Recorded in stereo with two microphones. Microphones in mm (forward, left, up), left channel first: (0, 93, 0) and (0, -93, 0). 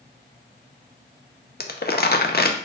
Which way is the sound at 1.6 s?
60° left (ahead or behind).